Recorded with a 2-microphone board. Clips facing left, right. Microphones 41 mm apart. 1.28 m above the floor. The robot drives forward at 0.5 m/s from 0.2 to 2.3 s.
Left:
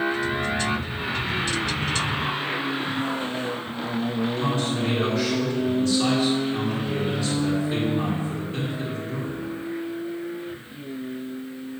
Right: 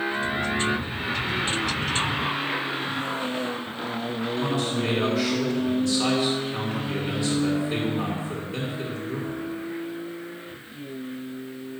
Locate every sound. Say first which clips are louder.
4.4 s a man speaking: left 1 dB; 5° right (ahead or behind), 2.5 m